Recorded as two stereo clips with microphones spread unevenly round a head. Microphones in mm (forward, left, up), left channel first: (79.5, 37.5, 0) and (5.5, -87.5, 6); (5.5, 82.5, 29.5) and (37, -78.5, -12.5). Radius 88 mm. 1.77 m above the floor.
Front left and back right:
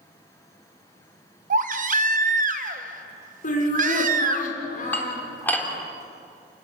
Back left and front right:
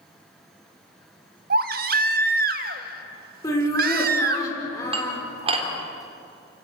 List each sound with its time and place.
1.5 s a baby crying: 120° right, 1.1 m
3.4 s laughter: 35° left, 6.5 m
4.9 s dishes clattering: 20° right, 3.5 m